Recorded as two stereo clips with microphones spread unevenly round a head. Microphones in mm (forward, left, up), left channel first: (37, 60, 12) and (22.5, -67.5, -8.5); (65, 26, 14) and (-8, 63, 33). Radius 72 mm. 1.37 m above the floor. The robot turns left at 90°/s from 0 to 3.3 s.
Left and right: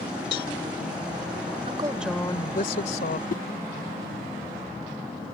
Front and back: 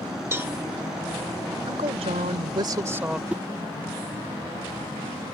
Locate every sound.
0.3 s a cowbell: 95° left; by 0.5 s 75° left
1.7 s a woman speaking: 150° right; by 3.2 s 70° left
3.3 s a whoosh: 85° left